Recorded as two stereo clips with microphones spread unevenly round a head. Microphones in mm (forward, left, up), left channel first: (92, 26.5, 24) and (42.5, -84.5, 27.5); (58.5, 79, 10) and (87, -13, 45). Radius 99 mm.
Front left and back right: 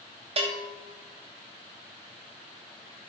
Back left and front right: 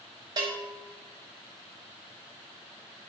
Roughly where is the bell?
Right.